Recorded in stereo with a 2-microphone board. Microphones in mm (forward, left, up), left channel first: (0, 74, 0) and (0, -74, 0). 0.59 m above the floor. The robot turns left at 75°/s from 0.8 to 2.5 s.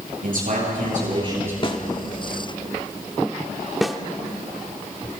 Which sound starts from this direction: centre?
A snare drum, at 3.8 s.